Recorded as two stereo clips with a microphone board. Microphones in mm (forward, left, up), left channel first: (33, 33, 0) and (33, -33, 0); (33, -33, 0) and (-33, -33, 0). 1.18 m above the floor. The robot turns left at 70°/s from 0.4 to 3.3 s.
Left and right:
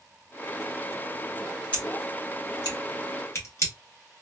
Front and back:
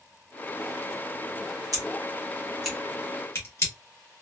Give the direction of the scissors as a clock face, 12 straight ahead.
7 o'clock.